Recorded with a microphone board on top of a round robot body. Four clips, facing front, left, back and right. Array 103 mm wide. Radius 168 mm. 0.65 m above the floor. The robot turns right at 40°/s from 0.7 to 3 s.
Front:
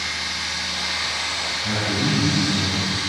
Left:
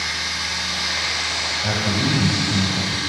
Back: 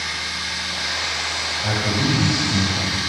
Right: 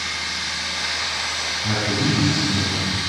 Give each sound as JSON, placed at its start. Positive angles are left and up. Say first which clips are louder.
{"t": 0.0, "sound": "running water", "louder": "left 1 dB, back 1 dB", "azimuth_deg": 90, "distance_m": 4.0}
{"t": 1.6, "sound": "a man speaking", "louder": "right 1 dB, back 2 dB", "azimuth_deg": 140, "distance_m": 5.5}